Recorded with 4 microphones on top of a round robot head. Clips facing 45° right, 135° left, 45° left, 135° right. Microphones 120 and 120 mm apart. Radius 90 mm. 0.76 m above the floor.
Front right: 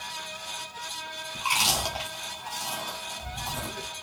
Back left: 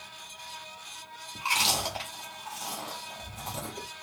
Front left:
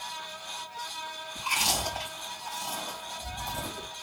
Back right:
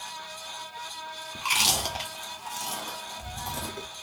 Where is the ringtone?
No ringtone in this recording.